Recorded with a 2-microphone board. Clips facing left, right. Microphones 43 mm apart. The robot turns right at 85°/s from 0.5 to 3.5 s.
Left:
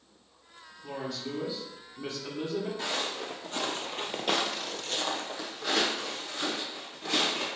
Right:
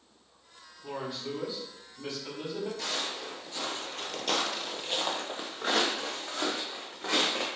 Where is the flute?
No flute in this recording.